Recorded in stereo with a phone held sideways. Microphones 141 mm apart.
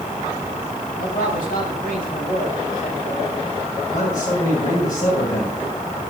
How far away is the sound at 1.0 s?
About 4 m.